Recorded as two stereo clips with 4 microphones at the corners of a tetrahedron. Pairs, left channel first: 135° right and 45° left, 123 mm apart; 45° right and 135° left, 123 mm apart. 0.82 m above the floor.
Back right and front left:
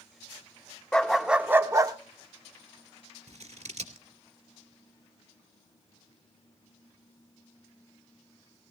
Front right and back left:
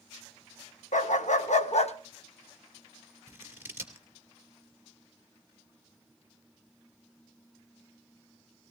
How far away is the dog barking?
About 0.8 m.